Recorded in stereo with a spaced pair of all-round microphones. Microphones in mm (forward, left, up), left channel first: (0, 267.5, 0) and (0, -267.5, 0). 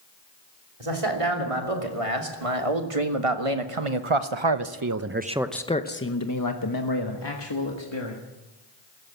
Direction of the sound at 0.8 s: 85° right.